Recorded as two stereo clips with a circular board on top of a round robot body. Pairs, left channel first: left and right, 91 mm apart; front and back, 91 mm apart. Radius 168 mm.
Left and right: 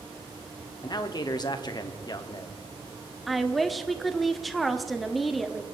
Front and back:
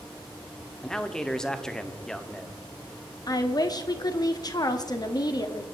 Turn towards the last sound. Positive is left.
turn(degrees=0)